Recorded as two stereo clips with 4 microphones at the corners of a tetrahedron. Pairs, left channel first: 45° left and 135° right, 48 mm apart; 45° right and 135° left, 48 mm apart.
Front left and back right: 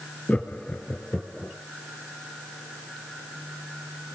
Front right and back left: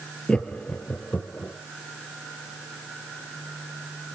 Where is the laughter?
10° left, 1.9 m; by 1.5 s 15° right, 3 m.